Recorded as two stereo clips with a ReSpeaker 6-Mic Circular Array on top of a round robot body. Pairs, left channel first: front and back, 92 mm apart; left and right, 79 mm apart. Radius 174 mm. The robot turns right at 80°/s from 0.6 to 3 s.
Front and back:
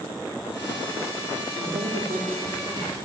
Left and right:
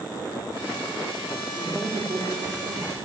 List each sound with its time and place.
1.6 s a woman speaking: 175° right, 4 m; by 3.0 s 65° right, 4 m